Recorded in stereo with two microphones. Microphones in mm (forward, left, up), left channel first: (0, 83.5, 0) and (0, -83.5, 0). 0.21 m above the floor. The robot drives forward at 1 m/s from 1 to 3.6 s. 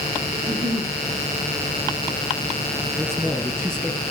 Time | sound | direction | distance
0.3 | a giggle | 25° right (ahead or behind) | 5.5 m
3.0 | a man speaking | 10° right (ahead or behind) | 2.5 m